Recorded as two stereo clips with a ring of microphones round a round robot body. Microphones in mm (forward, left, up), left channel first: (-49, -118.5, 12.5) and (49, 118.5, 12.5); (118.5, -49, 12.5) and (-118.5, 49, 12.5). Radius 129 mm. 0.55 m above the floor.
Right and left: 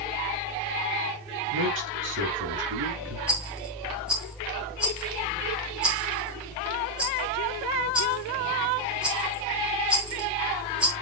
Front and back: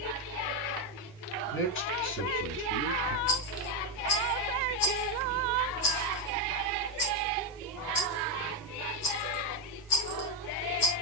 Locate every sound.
1.5 s a man speaking: 25° left, 6.5 m
3.3 s a rattle: 20° right, 4 m